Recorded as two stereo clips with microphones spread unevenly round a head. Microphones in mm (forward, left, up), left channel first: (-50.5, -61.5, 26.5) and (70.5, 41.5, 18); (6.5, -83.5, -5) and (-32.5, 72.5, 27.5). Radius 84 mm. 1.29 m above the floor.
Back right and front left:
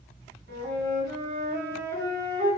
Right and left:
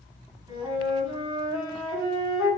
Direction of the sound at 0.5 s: 45° left.